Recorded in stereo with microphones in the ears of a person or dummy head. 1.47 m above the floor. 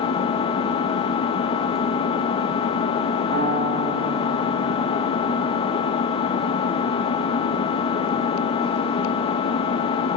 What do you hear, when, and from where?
0.0 s an engine running: 35° left (ahead or behind), 1.6 m
3.3 s a piano: 35° right (ahead or behind), 5.5 m